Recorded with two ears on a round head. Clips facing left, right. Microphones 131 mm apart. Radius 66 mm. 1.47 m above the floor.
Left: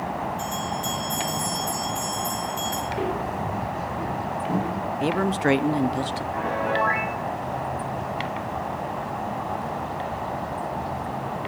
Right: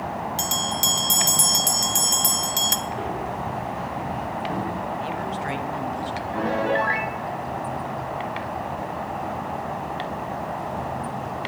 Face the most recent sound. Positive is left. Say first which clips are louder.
# right 3 dB
turn(degrees=-40)  # may be behind; listen again after turning